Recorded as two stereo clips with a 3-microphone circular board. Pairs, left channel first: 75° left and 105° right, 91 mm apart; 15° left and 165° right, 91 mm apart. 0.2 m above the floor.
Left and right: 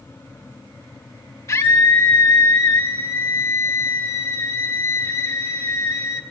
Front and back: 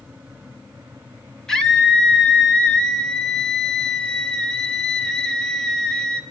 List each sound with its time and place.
1.5 s a scream: 95° left, 1.2 m